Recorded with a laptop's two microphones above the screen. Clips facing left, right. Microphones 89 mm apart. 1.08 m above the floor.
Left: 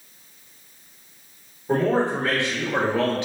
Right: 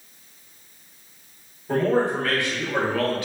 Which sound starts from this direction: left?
A man speaking, at 1.7 s.